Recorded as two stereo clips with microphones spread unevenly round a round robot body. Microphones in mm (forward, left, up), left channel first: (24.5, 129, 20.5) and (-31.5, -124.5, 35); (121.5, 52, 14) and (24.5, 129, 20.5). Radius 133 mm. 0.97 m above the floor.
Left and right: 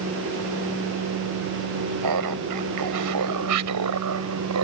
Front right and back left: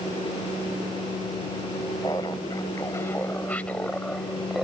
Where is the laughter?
115° right; by 4.7 s 130° right.